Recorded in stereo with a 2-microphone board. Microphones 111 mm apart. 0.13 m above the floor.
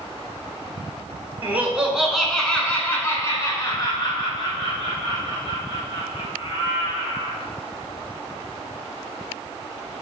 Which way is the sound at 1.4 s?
20° right (ahead or behind).